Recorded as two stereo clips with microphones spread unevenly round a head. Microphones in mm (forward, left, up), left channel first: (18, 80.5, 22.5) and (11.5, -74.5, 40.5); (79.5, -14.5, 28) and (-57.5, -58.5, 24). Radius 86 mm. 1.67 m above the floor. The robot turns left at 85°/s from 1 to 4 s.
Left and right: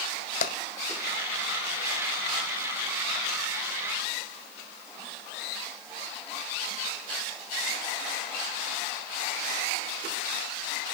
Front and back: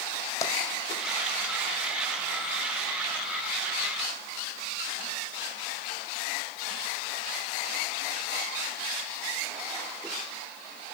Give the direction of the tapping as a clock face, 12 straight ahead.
9 o'clock.